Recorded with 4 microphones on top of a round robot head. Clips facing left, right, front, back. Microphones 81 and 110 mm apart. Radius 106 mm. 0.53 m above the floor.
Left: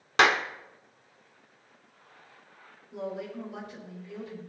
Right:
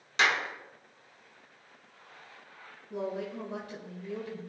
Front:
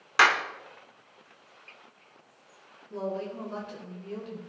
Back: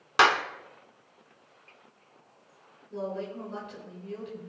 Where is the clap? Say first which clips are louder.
Left 5 dB, back 1 dB; 115° left, 1.3 m.